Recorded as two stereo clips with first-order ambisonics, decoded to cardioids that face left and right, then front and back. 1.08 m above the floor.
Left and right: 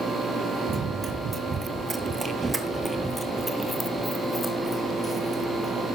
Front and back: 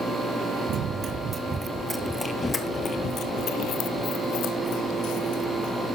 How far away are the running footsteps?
About 1.4 m.